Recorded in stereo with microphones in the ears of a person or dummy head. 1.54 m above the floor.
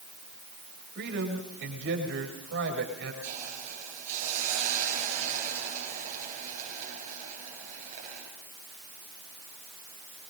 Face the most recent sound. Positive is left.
turn(degrees=-45)  # may be behind; listen again after turning